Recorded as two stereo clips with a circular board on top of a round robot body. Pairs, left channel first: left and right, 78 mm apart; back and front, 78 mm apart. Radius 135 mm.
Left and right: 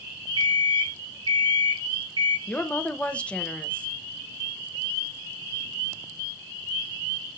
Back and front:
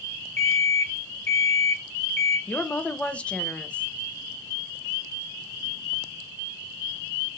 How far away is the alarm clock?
About 3.5 m.